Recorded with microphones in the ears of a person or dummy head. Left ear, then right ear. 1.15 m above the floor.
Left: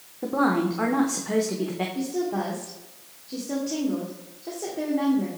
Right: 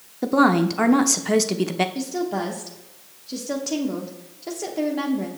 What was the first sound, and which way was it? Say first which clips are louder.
A woman speaking: right 5 dB; 85° right.